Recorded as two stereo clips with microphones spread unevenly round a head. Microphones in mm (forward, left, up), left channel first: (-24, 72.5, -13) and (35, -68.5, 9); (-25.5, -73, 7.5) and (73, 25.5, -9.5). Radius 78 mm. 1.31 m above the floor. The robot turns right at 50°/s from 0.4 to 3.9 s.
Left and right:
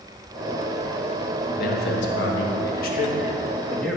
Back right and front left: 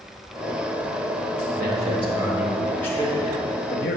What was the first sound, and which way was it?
A man speaking, 80° left.